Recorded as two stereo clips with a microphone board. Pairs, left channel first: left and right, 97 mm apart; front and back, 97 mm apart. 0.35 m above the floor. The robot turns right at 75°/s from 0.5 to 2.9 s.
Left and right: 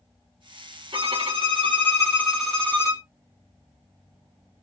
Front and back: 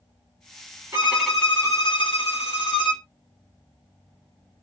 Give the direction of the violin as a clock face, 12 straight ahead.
4 o'clock.